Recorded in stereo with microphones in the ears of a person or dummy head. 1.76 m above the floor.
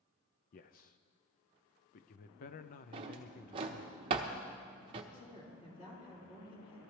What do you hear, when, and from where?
0.5 s a man speaking: 45° left (ahead or behind), 0.6 m
2.9 s a drawer: 25° right (ahead or behind), 0.9 m
5.1 s a man speaking: 25° left (ahead or behind), 4.5 m